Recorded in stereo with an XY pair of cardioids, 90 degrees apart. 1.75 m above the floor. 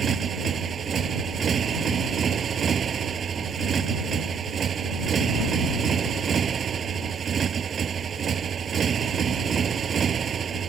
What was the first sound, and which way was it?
A motorcycle, 55° right.